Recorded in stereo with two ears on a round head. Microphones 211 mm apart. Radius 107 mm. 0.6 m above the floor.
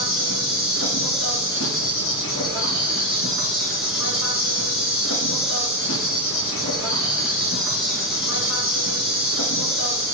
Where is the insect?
60° left (ahead or behind), 2.0 m.